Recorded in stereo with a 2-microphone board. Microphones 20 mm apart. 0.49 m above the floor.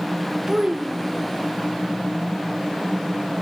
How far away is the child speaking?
About 1.0 m.